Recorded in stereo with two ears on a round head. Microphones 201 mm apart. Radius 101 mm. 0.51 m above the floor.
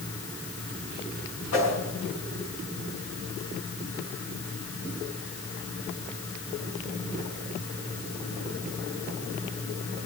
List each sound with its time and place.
1.5 s a whoosh: 65° left (ahead or behind), 7 m